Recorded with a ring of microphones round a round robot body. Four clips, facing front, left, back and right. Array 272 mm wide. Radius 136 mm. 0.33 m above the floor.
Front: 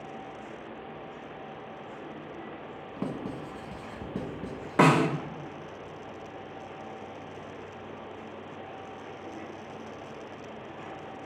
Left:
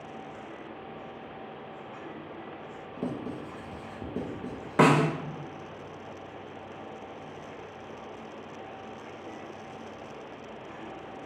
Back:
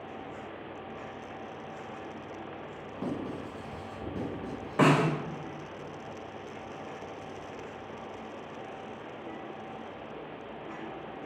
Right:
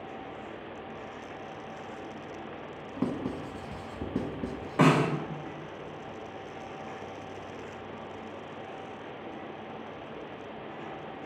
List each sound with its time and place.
3.0 s writing: 70° right, 1.1 m
4.8 s a snare drum: 45° left, 0.6 m